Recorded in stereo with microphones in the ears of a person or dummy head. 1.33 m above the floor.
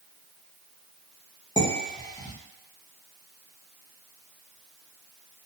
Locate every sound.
1.6 s dishes clattering: 20° left (ahead or behind), 0.9 m